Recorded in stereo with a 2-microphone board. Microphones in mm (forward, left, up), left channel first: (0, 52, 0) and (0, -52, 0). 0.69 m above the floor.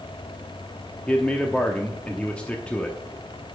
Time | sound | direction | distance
1.1 | a man speaking | 10° left (ahead or behind) | 0.9 m